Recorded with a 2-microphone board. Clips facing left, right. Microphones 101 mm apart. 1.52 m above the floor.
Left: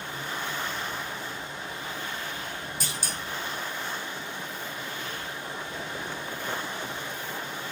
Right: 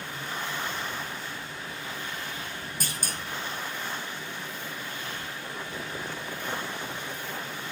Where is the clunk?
50° right (ahead or behind), 2 m.